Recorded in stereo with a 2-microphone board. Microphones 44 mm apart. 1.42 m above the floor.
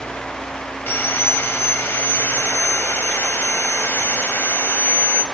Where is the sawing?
55° left (ahead or behind), 0.8 m.